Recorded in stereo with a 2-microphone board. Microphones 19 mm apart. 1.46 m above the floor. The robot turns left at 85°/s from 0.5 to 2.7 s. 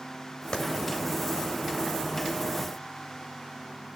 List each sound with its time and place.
0.5 s a clap: 45° left (ahead or behind), 3.5 m; by 0.6 s 40° left (ahead or behind), 3.5 m